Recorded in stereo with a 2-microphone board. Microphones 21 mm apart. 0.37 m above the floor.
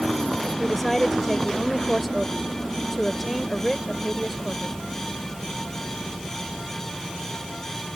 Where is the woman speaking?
Centre (ahead or behind).